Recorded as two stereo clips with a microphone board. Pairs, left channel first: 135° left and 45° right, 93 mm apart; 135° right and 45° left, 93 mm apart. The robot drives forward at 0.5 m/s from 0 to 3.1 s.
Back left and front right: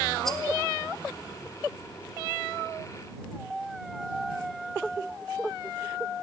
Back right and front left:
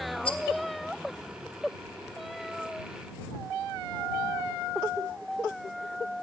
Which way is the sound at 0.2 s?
140° right.